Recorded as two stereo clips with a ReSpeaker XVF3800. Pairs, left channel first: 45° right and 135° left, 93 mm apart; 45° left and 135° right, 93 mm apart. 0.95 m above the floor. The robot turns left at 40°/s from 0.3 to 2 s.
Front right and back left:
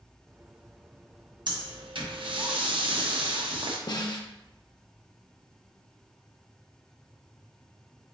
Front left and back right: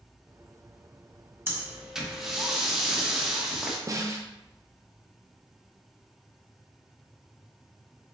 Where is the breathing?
160° left, 0.8 m; by 3.8 s 140° left, 0.8 m.